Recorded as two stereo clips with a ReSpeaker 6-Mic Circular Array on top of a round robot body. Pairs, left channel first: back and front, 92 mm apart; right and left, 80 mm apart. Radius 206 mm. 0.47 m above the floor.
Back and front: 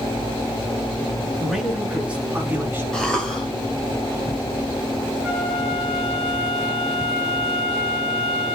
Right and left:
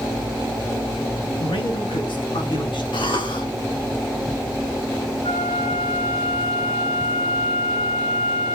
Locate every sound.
1.4 s a man speaking: 90° right, 4.5 m; by 2.8 s 70° right, 6 m
2.9 s a cough: 100° right, 5 m
5.2 s a flute: 90° right, 9 m